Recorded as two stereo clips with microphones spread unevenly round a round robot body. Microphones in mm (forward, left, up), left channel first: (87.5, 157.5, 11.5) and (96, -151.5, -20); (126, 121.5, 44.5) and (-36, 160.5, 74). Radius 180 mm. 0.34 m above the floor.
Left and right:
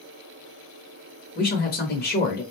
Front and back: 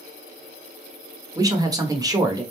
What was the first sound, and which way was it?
A man speaking, 105° left.